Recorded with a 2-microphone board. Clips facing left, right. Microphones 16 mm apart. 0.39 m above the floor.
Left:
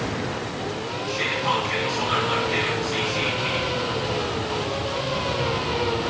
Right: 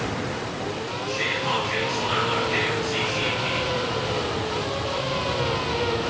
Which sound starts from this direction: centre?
Whispering, at 1.1 s.